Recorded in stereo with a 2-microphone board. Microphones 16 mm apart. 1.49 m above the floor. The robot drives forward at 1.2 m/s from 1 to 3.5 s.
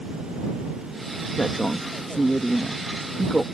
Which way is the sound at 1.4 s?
65° left (ahead or behind).